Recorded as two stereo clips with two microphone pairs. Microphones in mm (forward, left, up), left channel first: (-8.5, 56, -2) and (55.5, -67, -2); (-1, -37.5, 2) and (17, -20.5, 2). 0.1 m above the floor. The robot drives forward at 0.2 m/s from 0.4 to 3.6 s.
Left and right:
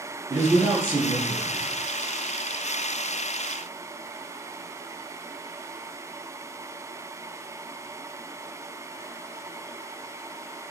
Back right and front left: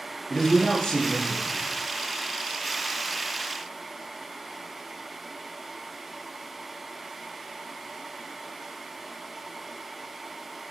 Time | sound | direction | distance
0.3 | a man speaking | 110° right | 1.6 m